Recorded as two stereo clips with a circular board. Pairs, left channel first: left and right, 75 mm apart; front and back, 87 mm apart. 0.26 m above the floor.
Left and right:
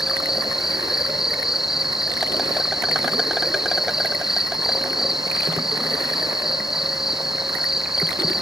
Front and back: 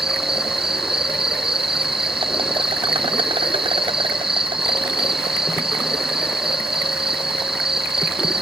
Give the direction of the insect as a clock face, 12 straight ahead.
6 o'clock.